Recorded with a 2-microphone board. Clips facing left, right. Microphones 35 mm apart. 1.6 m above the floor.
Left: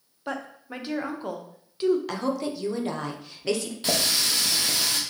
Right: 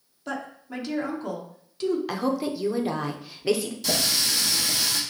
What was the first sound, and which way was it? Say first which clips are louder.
A woman speaking: even; 20° left (ahead or behind).